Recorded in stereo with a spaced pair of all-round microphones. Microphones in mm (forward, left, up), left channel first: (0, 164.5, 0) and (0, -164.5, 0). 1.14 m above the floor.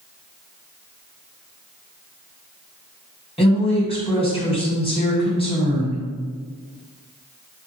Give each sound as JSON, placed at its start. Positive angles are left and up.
{"t": 3.4, "sound": "a woman speaking", "side_deg": 15, "distance_m": 1.7}